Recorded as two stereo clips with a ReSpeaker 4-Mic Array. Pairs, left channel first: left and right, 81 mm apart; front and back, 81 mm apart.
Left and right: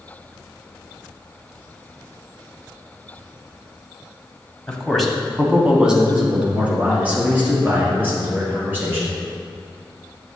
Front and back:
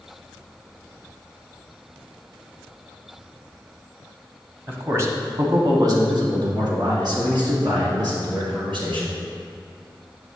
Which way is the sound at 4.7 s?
160° left.